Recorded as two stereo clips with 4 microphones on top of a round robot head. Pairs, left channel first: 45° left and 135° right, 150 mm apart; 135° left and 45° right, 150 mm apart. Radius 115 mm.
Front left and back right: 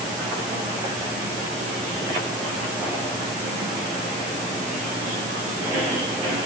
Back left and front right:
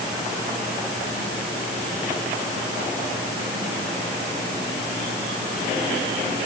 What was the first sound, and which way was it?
Only background noise.